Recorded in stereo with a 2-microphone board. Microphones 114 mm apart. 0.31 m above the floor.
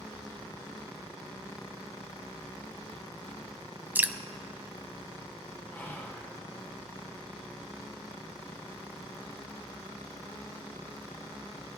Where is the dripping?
15° right (ahead or behind), 0.6 m.